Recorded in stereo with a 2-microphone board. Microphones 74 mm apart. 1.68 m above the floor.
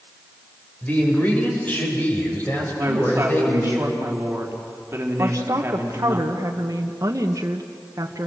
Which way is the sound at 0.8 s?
25° left (ahead or behind).